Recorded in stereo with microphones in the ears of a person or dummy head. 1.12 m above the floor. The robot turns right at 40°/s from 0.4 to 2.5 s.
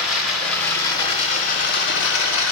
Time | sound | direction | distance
0.0 | running water | straight ahead | 3.5 m